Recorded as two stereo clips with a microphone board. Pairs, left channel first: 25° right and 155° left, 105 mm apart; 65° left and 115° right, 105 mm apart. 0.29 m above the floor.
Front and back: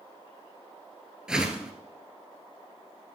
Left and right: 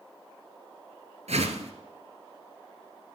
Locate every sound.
1.3 s a whoosh: 120° right, 1.3 m